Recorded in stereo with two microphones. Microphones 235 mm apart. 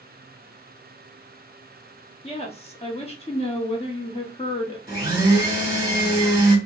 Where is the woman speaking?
25° left (ahead or behind), 0.8 m.